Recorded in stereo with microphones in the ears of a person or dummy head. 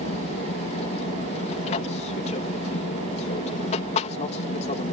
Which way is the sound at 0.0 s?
35° left (ahead or behind).